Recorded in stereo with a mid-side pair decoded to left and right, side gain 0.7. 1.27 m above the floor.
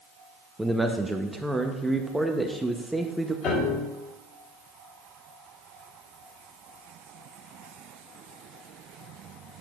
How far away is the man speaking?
About 0.8 m.